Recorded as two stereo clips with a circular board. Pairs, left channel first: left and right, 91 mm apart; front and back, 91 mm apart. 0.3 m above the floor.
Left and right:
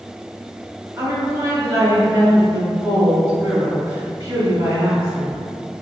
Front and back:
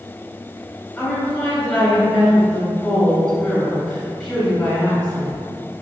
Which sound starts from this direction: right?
A woman speaking, at 1.0 s.